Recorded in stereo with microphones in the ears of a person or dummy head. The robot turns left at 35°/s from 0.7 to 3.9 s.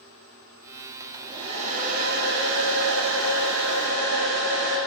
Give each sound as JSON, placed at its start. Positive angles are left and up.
{"t": 1.0, "sound": "a hair dryer", "azimuth_deg": -20, "distance_m": 1.5}